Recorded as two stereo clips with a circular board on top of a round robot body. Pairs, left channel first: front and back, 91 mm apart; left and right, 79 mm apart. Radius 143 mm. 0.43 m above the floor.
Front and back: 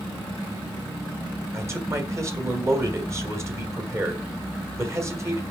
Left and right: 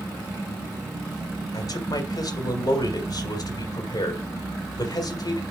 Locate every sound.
1.5 s a man speaking: 125° left, 2.5 m